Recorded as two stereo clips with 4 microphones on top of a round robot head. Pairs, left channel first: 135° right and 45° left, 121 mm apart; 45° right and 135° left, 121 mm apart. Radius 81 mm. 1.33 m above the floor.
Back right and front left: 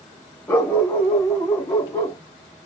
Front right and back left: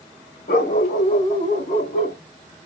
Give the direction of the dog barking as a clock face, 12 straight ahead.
2 o'clock.